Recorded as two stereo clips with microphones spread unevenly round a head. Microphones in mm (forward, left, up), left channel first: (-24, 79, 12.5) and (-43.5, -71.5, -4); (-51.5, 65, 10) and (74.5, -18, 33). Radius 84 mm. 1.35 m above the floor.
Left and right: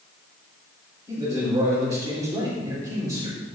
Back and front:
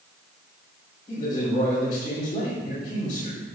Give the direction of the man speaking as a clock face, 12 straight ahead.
5 o'clock.